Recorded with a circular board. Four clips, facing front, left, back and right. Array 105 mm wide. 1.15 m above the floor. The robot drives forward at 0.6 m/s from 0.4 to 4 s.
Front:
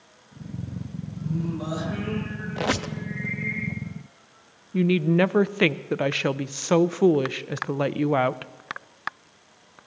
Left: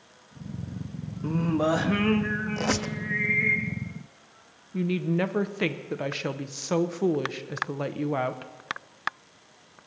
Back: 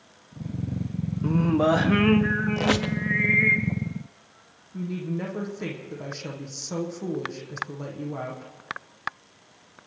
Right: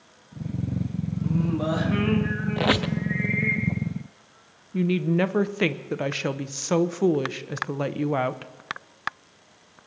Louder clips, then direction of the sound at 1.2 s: Left 2 dB, back 9 dB; 155° left.